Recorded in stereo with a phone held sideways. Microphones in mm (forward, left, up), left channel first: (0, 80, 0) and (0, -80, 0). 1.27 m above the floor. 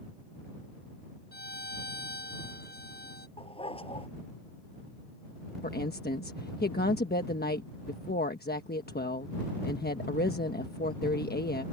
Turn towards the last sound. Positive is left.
turn(degrees=85)